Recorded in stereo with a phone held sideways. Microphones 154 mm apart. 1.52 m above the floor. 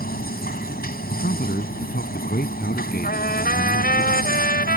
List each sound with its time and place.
0.0 s a machine running: 80° left
1.1 s a man speaking: 90° left
3.0 s a trumpet: 85° left